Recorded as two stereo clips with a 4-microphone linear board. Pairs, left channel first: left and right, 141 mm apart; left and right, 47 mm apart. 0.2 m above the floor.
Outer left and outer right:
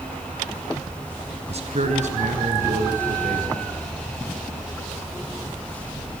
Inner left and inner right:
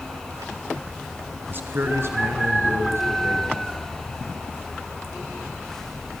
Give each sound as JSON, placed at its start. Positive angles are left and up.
{"t": 1.5, "sound": "a man speaking", "side_deg": -50, "distance_m": 1.9}